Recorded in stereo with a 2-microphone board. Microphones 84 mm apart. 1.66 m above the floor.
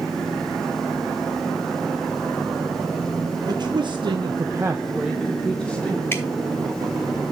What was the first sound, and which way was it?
A man speaking, 55° right (ahead or behind).